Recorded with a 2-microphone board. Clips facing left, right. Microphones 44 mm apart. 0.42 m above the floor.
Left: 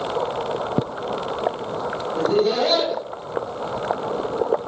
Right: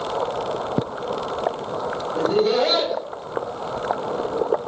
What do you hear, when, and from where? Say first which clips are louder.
2.1 s laughter: even; 5° right (ahead or behind), 1.5 m